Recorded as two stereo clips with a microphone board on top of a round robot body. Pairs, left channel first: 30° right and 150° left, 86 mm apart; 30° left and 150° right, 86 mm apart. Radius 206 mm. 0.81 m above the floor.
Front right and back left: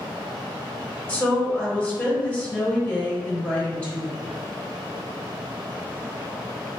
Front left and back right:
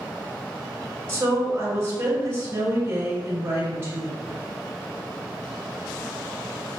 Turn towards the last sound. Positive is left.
turn(degrees=-95)